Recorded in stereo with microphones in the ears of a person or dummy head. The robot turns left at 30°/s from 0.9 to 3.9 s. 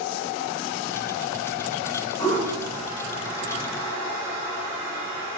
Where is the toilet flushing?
25° left (ahead or behind), 1.4 m; by 5.4 s 25° right (ahead or behind), 1.4 m.